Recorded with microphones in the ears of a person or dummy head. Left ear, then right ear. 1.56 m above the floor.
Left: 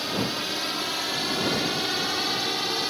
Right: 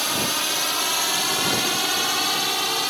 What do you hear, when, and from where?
0.0 s a drone: 40° right (ahead or behind); by 2.9 s 35° right (ahead or behind)